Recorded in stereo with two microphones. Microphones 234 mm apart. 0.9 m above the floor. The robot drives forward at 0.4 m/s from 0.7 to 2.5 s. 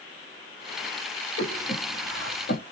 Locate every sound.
1.4 s breathing: 75° left (ahead or behind), 3 m; by 2.6 s 65° left (ahead or behind), 3 m